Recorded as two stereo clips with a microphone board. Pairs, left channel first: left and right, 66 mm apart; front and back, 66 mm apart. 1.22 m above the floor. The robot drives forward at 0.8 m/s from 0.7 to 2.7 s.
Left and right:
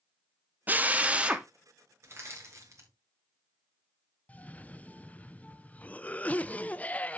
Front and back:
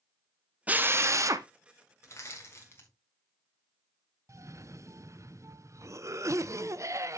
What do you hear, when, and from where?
0.7 s a drill: 130° right, 0.6 m; by 1.5 s 160° right, 1.0 m
2.0 s crushing: 45° right, 3.5 m; by 2.9 s 50° right, 3 m
4.3 s a cough: 155° left, 0.5 m